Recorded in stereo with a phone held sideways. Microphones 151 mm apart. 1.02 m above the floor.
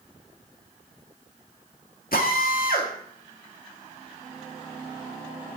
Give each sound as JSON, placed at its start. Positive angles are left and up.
{"t": 2.1, "sound": "a drill", "side_deg": 75, "distance_m": 2.0}